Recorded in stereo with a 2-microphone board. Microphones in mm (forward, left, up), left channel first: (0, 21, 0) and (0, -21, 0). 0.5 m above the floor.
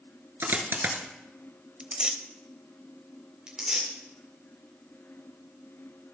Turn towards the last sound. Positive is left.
turn(degrees=-15)  # may be behind; listen again after turning